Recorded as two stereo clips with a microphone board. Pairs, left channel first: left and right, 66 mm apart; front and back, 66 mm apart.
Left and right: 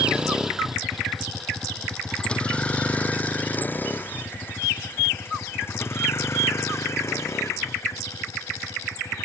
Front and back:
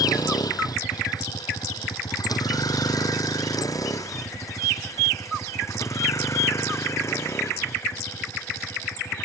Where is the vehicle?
15° right; by 9.3 s 50° left.